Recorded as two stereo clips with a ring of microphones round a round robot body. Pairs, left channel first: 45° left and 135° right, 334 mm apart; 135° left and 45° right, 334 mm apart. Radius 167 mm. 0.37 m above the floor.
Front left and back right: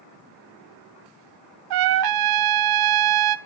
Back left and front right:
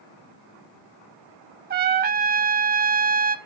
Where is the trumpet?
110° right, 0.7 m.